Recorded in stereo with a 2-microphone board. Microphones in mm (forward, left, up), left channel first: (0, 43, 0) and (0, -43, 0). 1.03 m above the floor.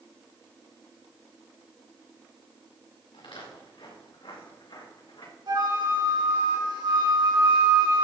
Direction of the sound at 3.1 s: 80° left.